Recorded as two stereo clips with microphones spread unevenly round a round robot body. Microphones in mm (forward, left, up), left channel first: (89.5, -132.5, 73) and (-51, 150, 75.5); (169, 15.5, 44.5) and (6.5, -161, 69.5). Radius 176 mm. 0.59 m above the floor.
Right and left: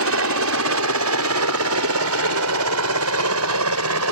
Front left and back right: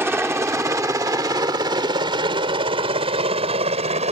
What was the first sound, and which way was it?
A helicopter, 145° left.